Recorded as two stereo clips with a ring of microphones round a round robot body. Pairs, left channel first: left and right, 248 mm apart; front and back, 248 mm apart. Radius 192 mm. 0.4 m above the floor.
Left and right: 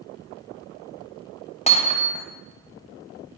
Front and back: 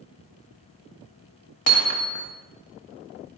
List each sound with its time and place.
1.7 s hammering: 25° left, 1.8 m